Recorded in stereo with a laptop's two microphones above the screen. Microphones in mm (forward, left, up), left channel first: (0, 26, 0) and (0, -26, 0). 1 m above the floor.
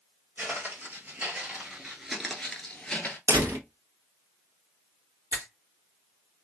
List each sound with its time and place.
0.4 s footsteps: 40° right (ahead or behind), 1.4 m; by 3.2 s 20° left (ahead or behind), 1.0 m
3.3 s a door slam: 80° right, 1.0 m
5.3 s a finger snap: 60° right (ahead or behind), 1.6 m